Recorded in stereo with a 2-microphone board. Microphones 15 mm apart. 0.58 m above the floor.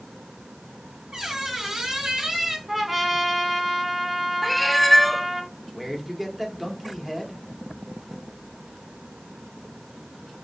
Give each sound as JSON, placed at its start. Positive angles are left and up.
{"t": 1.1, "sound": "a squeak", "side_deg": -45, "distance_m": 2.5}
{"t": 2.7, "sound": "a trumpet", "side_deg": -15, "distance_m": 1.5}
{"t": 4.4, "sound": "a cat meowing", "side_deg": 5, "distance_m": 0.8}
{"t": 5.7, "sound": "a man speaking", "side_deg": -10, "distance_m": 1.8}